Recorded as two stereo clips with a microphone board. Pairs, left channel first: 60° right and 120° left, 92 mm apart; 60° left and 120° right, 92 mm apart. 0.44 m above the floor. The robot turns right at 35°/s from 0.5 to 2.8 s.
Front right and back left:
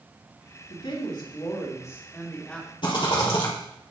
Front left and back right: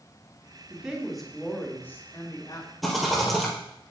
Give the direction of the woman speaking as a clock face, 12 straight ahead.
2 o'clock.